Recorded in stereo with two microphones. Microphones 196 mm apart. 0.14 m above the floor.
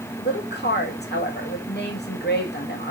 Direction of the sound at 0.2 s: 60° left (ahead or behind).